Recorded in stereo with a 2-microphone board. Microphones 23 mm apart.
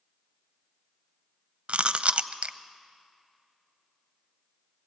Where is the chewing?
55° right (ahead or behind), 0.6 m.